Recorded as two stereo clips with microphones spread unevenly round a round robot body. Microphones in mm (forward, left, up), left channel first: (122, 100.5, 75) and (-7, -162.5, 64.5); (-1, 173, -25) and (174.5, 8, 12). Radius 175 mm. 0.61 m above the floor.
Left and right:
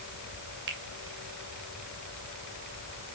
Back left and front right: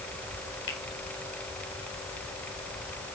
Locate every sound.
0.7 s a finger snap: 170° right, 2 m